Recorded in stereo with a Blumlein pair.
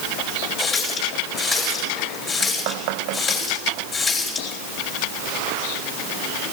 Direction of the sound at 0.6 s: 15° left.